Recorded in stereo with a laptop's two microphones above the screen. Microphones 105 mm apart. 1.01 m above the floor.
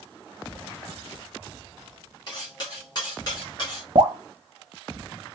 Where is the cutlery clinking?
45° left (ahead or behind), 1.7 m.